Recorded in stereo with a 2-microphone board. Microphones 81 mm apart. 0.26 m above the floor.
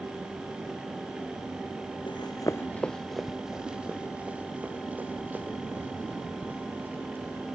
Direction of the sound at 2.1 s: 75° left (ahead or behind).